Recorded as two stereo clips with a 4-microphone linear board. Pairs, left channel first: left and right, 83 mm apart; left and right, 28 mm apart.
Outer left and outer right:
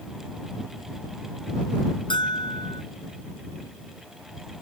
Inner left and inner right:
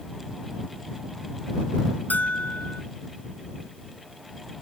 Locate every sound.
2.1 s a bell: 75° left (ahead or behind)